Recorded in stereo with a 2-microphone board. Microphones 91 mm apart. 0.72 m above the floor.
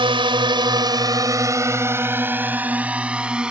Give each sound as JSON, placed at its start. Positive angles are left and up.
{"t": 0.0, "sound": "a drone", "side_deg": -70}